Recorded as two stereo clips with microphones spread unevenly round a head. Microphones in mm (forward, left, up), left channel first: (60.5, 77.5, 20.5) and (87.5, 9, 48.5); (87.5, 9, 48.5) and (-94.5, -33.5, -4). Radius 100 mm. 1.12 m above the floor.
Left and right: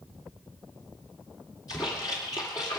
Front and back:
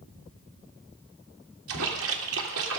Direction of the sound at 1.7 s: Straight behind.